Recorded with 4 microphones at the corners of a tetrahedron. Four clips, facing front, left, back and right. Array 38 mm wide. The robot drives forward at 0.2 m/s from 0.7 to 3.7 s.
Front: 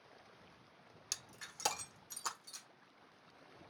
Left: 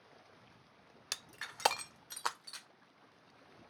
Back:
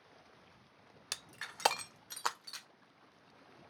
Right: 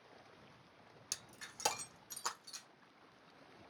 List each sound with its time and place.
1.1 s breaking glass: 130° left, 0.6 m; by 2.7 s 150° left, 0.8 m